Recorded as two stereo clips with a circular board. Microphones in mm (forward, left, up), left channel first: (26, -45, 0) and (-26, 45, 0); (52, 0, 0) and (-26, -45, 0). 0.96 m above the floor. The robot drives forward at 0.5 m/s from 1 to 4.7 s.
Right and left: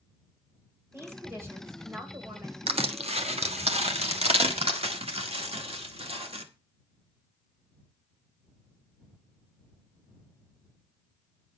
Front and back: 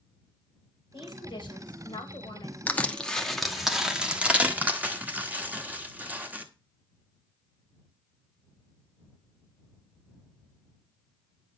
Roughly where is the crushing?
Left.